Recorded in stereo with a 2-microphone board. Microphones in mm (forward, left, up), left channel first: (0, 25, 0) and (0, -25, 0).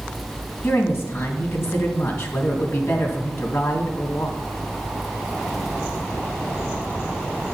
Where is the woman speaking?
55° left (ahead or behind), 2.5 m.